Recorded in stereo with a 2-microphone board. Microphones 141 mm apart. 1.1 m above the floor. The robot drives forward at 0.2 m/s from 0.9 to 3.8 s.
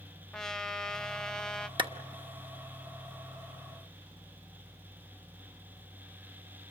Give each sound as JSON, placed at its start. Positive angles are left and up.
{"t": 0.3, "sound": "a trumpet", "side_deg": 5, "distance_m": 0.7}
{"t": 1.8, "sound": "a clap", "side_deg": -35, "distance_m": 1.1}